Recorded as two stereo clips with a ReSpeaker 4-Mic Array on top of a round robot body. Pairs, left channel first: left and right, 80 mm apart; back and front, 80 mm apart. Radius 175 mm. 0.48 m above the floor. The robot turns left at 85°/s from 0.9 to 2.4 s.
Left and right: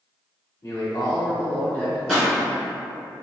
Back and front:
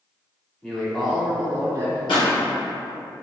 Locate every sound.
0.6 s a man speaking: 105° left, 1.8 m; by 2.0 s 10° left, 1.8 m
2.1 s a pop: straight behind, 1.8 m; by 2.3 s 165° left, 1.8 m